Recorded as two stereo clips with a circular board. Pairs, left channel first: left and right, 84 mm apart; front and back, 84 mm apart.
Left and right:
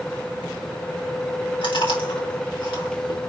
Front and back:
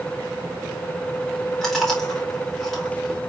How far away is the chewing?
About 4.5 m.